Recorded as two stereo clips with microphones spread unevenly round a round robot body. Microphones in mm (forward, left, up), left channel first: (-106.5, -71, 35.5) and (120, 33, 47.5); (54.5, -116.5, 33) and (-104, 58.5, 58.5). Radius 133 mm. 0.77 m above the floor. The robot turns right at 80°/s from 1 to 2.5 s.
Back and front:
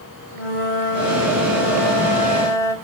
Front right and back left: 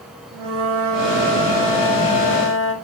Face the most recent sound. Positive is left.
turn(degrees=-75)